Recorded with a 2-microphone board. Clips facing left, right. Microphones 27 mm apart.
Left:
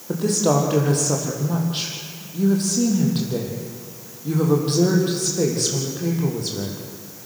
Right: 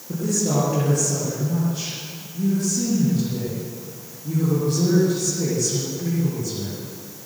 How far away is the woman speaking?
About 8.5 m.